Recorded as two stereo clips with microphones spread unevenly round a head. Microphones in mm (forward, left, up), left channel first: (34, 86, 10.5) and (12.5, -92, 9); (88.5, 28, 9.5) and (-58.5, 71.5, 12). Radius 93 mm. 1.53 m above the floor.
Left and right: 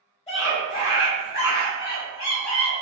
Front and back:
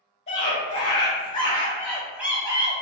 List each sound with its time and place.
0.3 s a scream: 25° left, 1.5 m; by 2.8 s 115° left, 0.7 m